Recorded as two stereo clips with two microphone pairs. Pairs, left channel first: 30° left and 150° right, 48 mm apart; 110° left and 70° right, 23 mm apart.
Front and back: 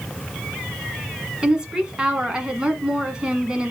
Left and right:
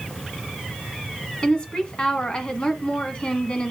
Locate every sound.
1.4 s a woman speaking: 145° left, 1.6 m